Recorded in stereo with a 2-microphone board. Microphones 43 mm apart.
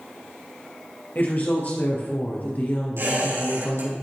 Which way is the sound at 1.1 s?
40° left (ahead or behind).